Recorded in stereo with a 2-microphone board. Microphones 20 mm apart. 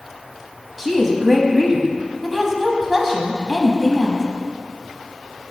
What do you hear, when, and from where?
0.8 s a woman speaking: centre (ahead or behind), 1.0 m